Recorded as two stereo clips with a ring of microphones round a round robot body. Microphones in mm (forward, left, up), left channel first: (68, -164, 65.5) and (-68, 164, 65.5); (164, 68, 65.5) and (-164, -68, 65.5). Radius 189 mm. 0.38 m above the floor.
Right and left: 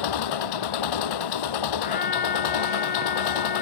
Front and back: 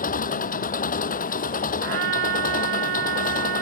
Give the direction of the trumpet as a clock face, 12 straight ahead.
4 o'clock.